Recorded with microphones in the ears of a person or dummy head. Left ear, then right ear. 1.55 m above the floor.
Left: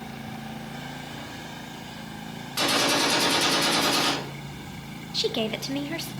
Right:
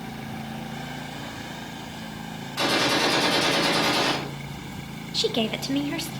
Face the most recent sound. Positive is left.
turn(degrees=0)  # may be behind; listen again after turning